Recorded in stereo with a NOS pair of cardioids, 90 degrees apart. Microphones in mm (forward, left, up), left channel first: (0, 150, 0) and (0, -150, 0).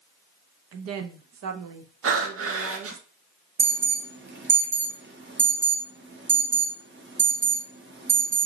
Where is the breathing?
50° right, 0.9 m.